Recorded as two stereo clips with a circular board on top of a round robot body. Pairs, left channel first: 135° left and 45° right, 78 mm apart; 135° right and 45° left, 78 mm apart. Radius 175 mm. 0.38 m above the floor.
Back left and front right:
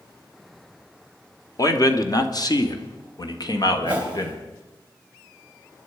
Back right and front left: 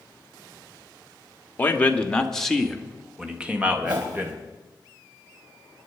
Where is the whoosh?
20° left, 3.5 m.